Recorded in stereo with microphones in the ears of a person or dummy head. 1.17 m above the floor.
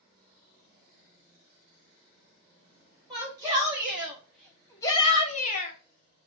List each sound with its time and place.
3.1 s a shout: 15° right (ahead or behind), 2 m; by 5.8 s 55° left (ahead or behind), 1.1 m